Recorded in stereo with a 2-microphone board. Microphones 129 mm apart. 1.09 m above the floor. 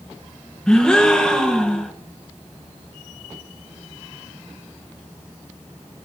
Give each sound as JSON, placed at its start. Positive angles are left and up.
{"t": 0.7, "sound": "a gasp", "side_deg": 5, "distance_m": 1.0}